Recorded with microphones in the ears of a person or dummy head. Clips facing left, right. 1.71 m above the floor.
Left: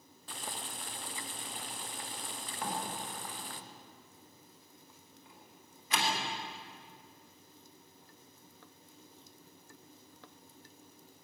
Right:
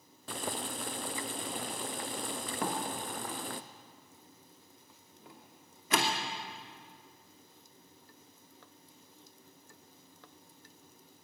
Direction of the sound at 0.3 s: 45° right (ahead or behind).